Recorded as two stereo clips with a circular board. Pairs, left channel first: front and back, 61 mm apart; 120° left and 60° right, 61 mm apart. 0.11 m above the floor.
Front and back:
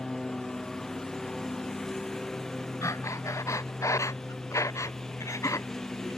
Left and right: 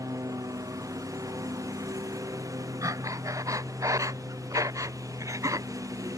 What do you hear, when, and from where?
0.0 s a lawn mower: 85° right
2.8 s breathing: 35° right